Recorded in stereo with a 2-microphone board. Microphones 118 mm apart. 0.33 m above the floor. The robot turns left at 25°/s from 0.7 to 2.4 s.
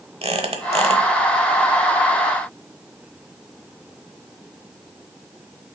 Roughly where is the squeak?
Right.